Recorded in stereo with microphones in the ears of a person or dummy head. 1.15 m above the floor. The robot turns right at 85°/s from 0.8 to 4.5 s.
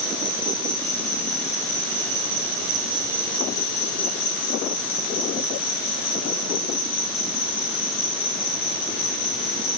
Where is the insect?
155° left, 1.9 m; by 9.8 s 105° left, 1.9 m.